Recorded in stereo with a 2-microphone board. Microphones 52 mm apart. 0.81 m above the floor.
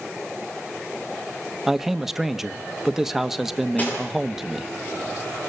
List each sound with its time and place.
1.7 s a man speaking: 5° right (ahead or behind), 1.1 m
3.8 s cutlery clinking: 30° left (ahead or behind), 9 m